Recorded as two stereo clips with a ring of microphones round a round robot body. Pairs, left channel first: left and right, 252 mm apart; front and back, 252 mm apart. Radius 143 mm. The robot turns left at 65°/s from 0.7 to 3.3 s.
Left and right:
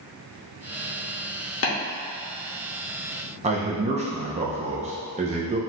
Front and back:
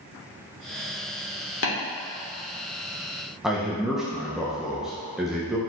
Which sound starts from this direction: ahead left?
Tapping, at 1.6 s.